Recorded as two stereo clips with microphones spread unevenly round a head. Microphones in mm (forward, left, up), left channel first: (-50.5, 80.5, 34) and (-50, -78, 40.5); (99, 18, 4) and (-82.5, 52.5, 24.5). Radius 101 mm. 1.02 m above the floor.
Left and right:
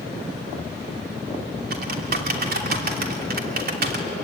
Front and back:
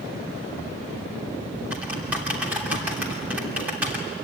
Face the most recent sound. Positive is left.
turn(degrees=-110)